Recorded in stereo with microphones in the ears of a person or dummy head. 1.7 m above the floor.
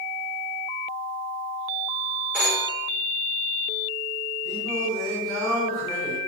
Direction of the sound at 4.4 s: 5° left (ahead or behind).